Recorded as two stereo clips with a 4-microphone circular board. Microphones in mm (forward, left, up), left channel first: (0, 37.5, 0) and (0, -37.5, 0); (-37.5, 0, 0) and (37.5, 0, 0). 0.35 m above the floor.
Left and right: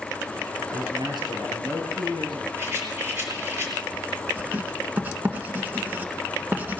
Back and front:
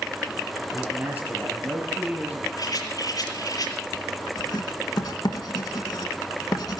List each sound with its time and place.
0.7 s a man speaking: 65° right, 6 m
2.6 s a rattle: 150° right, 6 m
4.4 s writing: 155° right, 1.6 m